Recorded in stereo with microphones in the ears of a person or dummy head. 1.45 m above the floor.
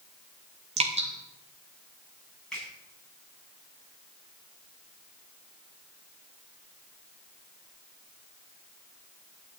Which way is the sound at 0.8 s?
35° right (ahead or behind).